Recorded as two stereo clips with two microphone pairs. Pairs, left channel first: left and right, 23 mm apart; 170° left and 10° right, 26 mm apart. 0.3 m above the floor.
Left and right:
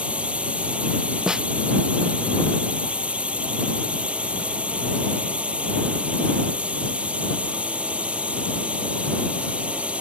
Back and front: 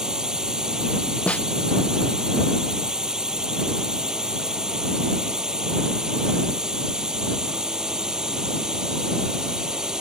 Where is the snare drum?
150° right.